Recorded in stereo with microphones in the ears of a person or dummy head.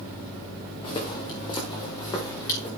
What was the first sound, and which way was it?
Footsteps, 25° left (ahead or behind).